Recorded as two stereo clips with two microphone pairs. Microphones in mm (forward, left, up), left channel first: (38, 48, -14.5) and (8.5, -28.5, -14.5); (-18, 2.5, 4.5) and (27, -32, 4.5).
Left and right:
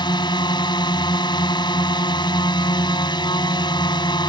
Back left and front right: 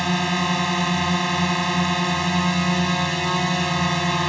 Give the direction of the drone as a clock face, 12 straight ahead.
10 o'clock.